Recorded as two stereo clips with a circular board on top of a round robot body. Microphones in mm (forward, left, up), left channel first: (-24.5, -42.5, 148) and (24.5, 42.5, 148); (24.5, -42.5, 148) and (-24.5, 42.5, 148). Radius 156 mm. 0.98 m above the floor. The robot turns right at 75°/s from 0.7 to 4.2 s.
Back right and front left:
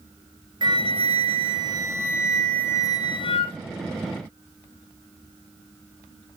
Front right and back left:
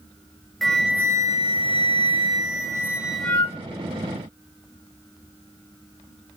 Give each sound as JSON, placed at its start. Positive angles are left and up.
{"t": 0.6, "sound": "a flute", "azimuth_deg": 25, "distance_m": 1.3}